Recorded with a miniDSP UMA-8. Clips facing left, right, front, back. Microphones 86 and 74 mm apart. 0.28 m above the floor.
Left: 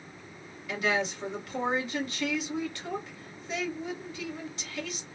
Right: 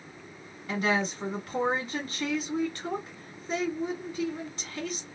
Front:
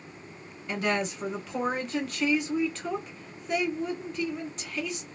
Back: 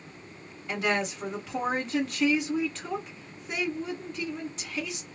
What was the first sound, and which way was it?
A woman speaking, 80° right.